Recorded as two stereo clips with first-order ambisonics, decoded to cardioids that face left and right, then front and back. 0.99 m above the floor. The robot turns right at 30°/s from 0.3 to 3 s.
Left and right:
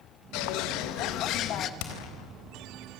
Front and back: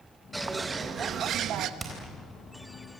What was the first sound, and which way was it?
A bird, 95° left.